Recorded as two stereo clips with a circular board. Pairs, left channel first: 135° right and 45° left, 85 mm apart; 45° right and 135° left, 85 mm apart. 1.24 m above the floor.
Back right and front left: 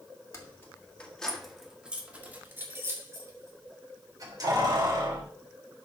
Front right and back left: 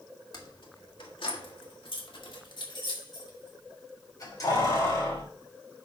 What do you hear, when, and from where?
0.3 s keys jangling: 80° right, 1.7 m; by 5.2 s 5° left, 4 m